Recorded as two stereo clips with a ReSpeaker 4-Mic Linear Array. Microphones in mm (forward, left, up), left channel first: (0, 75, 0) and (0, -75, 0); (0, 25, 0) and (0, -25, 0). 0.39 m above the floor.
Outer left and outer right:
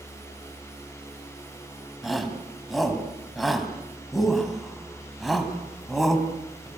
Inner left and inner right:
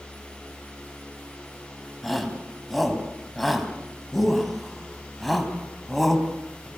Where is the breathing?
I don't hear breathing.